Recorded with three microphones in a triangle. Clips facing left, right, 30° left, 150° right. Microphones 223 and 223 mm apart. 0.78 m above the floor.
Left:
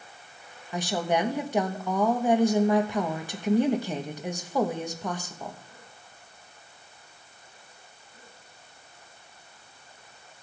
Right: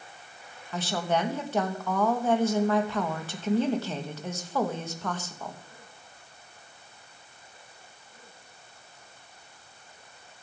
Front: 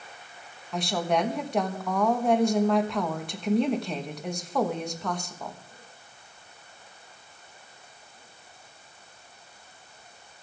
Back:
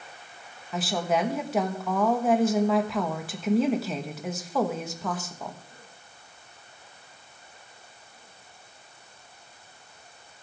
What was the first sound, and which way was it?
A woman speaking, 130° left.